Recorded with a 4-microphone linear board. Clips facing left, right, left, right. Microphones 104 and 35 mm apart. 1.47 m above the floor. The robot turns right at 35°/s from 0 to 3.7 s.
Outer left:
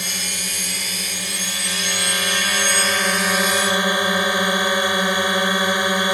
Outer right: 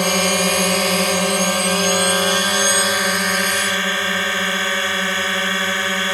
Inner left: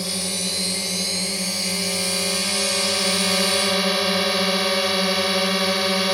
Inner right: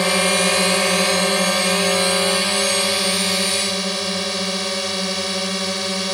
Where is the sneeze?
No sneeze in this recording.